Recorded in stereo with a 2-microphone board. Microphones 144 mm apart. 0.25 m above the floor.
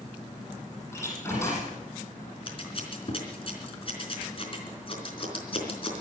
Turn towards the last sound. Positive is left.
turn(degrees=40)  # may be behind; listen again after turning